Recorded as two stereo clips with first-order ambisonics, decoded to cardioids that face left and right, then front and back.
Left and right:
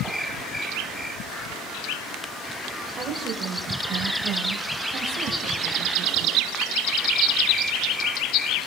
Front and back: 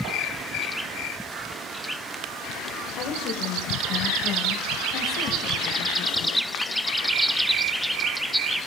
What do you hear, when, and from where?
3.0 s a woman speaking: 25° right, 2.0 m; by 6.5 s 50° right, 3.5 m